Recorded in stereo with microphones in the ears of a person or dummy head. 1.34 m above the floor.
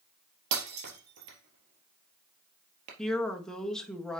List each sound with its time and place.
0.5 s breaking glass: 60° right (ahead or behind), 3.5 m
3.0 s a woman speaking: 5° left (ahead or behind), 1.6 m